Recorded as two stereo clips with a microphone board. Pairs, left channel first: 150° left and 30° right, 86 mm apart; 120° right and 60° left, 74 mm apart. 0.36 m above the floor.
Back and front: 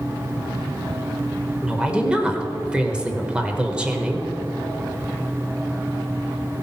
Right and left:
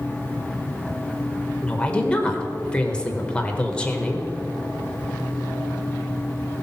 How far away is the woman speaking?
About 1.1 m.